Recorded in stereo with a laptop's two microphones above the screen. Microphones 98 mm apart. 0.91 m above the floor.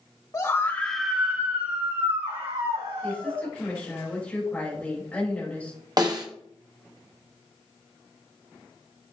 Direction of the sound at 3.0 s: 15° left (ahead or behind).